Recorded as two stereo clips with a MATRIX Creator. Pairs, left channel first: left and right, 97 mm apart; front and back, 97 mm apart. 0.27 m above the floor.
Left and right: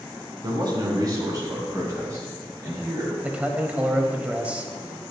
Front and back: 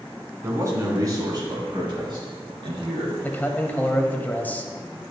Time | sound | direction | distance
0.4 | a man speaking | 125° right | 3 m
3.2 | a man speaking | 40° right | 1.2 m